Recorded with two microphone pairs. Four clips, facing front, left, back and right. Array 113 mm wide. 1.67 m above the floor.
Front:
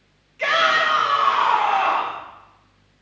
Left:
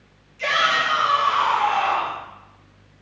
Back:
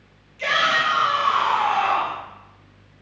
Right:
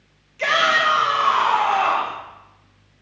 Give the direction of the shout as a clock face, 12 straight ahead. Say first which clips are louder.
Right 3 dB, front 2 dB; 2 o'clock.